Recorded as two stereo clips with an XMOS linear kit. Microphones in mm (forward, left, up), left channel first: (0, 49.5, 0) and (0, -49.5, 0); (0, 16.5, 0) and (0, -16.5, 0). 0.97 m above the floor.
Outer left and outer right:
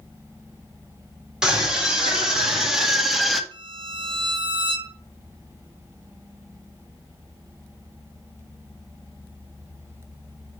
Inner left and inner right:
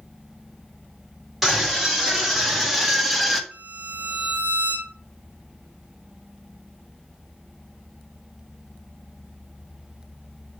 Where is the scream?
5° right (ahead or behind), 3.5 m; by 3.4 s centre (ahead or behind), 1.5 m.